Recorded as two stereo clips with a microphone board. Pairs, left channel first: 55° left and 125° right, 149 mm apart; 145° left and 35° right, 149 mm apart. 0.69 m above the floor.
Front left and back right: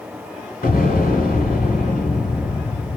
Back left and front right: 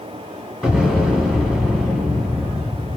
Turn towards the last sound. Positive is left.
turn(degrees=50)